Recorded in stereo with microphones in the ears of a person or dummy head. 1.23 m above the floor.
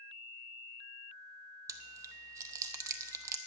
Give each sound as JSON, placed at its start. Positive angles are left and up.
{"t": 1.7, "sound": "chewing", "side_deg": -20, "distance_m": 0.8}